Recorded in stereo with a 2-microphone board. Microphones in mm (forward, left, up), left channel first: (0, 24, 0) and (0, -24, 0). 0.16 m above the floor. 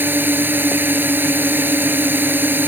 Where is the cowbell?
No cowbell in this recording.